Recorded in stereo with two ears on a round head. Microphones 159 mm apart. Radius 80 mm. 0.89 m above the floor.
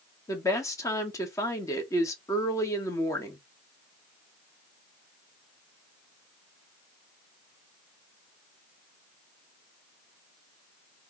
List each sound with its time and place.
0.3 s a woman speaking: 15° left (ahead or behind), 1.3 m